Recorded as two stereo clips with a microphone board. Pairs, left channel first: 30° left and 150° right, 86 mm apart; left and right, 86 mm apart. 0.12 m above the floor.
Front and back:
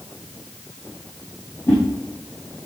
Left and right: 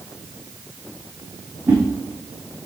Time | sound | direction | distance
1.7 | a whoosh | 20° right | 8 m